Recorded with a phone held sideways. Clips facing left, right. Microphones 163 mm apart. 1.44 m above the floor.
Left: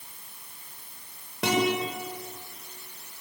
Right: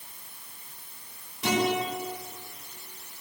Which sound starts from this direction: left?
A guitar, at 1.4 s.